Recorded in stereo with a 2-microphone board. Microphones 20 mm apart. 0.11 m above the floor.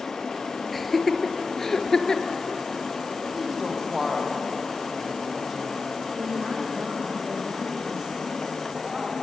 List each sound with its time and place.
0.7 s laughter: 5° left (ahead or behind), 2 m; by 2.4 s 30° left (ahead or behind), 1.9 m
3.3 s a woman speaking: 20° right (ahead or behind), 5 m
6.2 s a woman speaking: 45° right (ahead or behind), 5.5 m